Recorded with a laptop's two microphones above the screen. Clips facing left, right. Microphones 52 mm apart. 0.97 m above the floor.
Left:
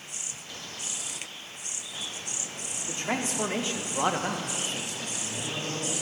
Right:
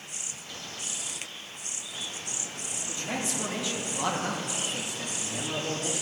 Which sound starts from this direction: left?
A man speaking, at 2.9 s.